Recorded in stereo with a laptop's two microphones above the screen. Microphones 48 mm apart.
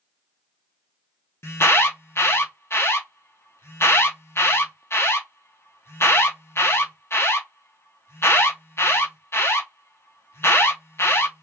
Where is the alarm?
60° left (ahead or behind), 0.6 m.